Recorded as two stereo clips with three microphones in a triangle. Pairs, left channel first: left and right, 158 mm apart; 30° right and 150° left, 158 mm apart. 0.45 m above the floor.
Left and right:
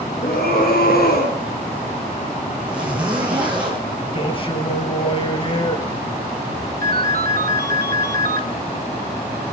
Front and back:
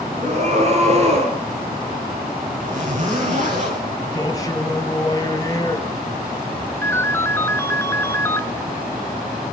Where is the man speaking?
35° left, 3.5 m.